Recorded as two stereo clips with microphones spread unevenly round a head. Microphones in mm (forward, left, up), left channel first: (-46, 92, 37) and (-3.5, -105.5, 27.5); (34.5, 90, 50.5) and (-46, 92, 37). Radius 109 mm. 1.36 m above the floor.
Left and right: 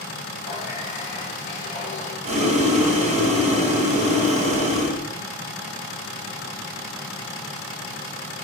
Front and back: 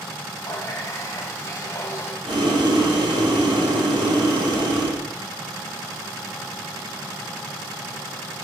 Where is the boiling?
135° right, 3.5 m.